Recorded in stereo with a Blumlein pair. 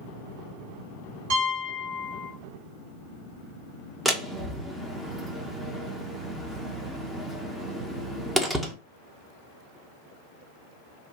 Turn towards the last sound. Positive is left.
turn(degrees=-5)